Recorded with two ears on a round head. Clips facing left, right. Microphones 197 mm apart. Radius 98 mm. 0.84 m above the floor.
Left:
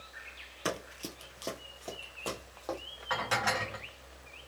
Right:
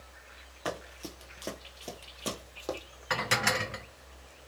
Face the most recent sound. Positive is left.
turn(degrees=-35)  # may be behind; listen again after turning